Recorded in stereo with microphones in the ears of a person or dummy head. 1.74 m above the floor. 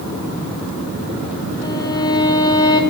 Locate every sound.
1.6 s a violin: 25° left (ahead or behind), 1.5 m